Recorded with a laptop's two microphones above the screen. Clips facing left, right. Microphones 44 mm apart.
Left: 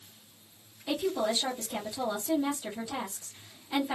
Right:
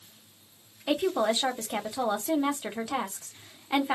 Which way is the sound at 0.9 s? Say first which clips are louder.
Right 4 dB; 55° right (ahead or behind).